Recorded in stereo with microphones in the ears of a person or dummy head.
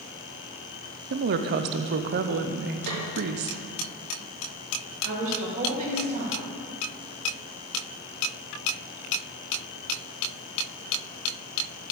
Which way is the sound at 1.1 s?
55° right (ahead or behind).